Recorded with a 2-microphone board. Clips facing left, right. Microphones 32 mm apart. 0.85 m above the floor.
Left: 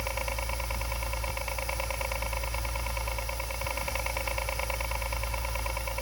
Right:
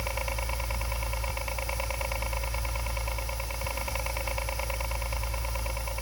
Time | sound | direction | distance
0.0 | a helicopter | centre (ahead or behind) | ?